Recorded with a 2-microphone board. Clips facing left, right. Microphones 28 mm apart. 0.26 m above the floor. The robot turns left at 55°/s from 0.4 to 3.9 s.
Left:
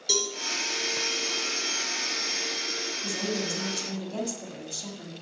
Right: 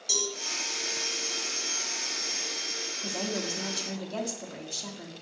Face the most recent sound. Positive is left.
turn(degrees=-160)